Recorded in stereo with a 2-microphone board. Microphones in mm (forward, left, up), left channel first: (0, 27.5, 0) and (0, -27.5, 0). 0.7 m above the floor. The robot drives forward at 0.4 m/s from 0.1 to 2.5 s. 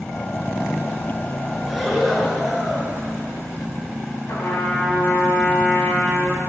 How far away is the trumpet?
About 4.5 m.